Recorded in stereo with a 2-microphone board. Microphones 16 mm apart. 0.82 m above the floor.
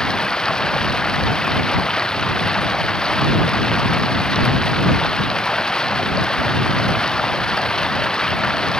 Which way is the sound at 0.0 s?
45° left (ahead or behind).